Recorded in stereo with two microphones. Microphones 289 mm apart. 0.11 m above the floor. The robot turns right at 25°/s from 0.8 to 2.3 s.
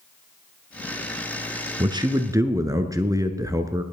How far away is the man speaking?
About 1.1 m.